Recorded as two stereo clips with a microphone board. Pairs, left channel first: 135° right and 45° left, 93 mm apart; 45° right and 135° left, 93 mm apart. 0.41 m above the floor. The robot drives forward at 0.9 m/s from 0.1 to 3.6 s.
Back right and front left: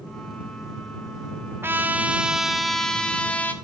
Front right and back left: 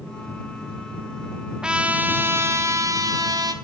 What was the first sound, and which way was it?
A trumpet, 65° left.